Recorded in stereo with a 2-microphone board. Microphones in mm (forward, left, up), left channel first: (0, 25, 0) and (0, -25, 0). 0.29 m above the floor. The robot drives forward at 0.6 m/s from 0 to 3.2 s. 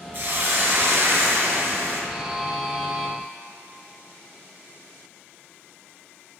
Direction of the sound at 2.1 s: 10° right (ahead or behind).